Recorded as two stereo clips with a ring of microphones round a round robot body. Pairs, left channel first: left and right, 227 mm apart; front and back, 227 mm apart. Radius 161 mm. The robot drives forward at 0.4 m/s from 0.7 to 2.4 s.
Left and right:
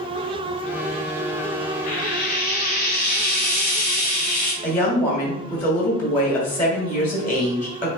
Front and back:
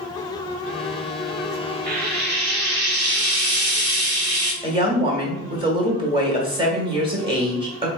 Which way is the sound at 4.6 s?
160° left.